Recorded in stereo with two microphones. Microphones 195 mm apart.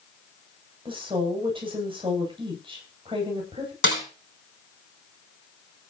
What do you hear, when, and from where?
0.8 s a woman speaking: 25° right (ahead or behind), 10 m
3.8 s a snare drum: 80° left, 4.5 m